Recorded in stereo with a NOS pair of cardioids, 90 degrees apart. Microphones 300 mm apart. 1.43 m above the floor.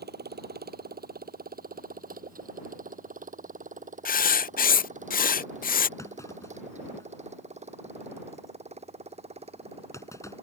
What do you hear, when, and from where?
0.0 s a motorcycle: 30° right; by 10.4 s 20° right
4.0 s writing: 30° left
6.0 s a clunk: 10° left